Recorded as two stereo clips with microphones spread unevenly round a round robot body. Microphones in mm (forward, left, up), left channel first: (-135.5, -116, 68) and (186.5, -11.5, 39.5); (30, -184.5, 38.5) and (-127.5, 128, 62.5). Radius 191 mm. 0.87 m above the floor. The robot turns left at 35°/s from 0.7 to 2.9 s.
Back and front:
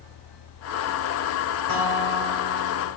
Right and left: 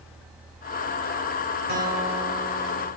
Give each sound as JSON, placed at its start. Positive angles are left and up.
{"t": 1.7, "sound": "a guitar", "azimuth_deg": 50, "distance_m": 2.5}